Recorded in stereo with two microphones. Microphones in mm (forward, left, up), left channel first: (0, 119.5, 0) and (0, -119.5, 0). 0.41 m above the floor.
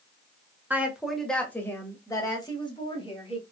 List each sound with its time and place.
0.7 s a woman speaking: 10° right (ahead or behind), 1.3 m; by 3.4 s 25° left (ahead or behind), 2.5 m